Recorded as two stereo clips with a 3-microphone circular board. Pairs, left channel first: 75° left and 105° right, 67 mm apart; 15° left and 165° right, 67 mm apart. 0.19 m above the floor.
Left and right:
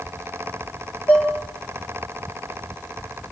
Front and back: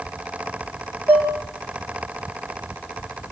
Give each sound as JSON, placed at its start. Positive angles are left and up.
{"t": 1.1, "sound": "dishes clattering", "azimuth_deg": 135, "distance_m": 3.0}